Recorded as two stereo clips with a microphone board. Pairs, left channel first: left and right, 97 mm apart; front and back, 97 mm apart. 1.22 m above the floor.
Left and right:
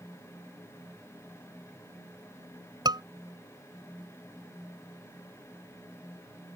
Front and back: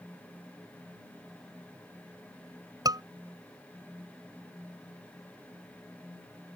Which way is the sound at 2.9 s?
130° right.